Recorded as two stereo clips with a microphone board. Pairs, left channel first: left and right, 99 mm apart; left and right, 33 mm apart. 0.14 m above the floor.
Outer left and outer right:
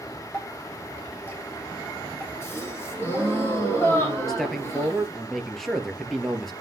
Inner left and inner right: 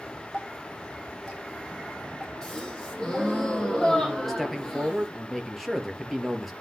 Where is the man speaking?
Centre (ahead or behind), 3 m.